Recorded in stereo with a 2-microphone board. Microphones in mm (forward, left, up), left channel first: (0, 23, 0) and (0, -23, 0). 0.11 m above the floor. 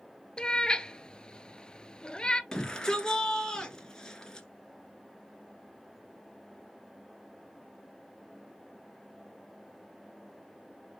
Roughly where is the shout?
Centre.